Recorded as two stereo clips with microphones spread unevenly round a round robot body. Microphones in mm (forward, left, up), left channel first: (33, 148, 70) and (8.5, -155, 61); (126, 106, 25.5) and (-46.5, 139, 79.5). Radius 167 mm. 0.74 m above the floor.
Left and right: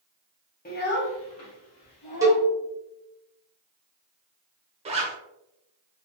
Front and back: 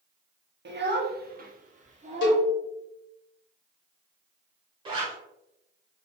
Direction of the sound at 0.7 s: 145° left.